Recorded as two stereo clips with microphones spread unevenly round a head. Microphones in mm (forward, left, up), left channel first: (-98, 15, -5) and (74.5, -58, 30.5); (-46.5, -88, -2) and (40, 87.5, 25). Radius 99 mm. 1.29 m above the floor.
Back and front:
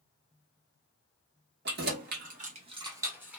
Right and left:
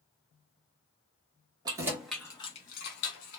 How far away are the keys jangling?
About 0.9 m.